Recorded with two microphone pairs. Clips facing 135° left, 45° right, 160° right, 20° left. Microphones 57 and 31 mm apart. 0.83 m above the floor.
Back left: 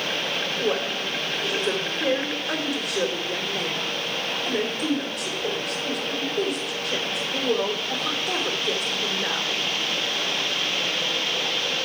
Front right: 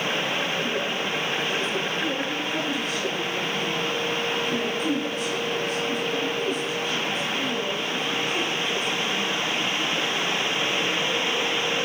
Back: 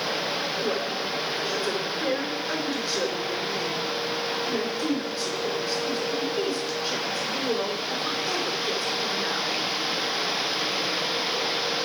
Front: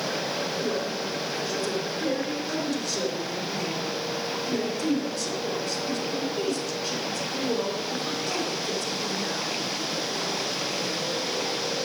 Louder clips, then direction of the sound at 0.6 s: Back left 1 dB, back 1 dB; 130° left.